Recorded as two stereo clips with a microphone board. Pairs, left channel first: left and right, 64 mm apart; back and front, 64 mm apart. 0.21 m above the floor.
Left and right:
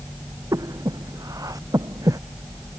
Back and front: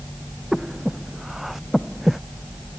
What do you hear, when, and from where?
0.5 s breathing: 85° right